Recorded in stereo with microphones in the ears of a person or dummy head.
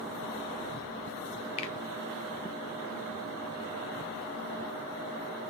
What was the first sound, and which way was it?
A finger snap, 30° left (ahead or behind).